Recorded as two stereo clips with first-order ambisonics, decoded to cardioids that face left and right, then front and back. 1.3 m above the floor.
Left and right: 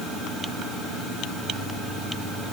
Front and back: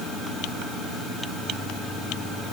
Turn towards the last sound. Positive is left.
No sound to turn to.